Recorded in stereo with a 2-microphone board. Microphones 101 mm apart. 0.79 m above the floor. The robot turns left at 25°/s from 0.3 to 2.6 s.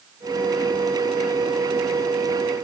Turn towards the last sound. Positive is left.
No sound to turn to.